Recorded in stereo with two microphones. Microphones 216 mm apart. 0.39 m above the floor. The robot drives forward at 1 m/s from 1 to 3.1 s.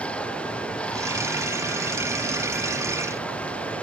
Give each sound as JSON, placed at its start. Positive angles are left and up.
{"t": 0.0, "sound": "running water", "side_deg": 5}